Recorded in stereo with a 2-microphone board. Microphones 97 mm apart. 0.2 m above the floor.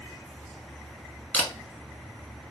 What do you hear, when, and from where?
1.3 s a camera shutter: 20° left (ahead or behind), 0.8 m